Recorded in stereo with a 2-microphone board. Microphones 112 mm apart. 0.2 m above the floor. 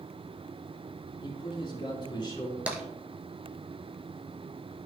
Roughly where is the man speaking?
Left.